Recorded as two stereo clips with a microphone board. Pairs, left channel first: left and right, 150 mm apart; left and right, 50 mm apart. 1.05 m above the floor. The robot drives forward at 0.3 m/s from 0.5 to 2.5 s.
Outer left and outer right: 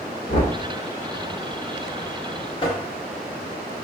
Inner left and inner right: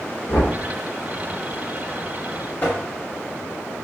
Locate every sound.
0.3 s knocking: 75° left (ahead or behind), 1.7 m
2.6 s tapping: 35° left (ahead or behind), 1.1 m